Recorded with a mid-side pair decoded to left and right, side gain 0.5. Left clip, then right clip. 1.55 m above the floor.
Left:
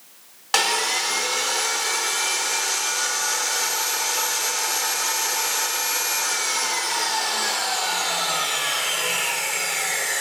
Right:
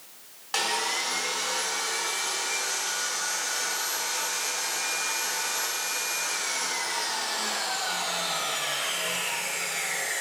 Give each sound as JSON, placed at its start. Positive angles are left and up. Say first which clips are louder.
{"t": 0.5, "sound": "sawing", "louder": "left 6 dB", "azimuth_deg": 55, "distance_m": 0.8}